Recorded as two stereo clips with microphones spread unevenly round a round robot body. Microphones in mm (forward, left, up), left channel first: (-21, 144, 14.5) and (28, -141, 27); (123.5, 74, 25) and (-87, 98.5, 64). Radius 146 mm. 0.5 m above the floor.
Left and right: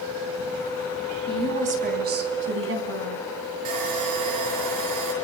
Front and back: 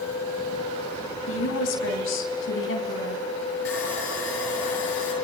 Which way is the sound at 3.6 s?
55° right.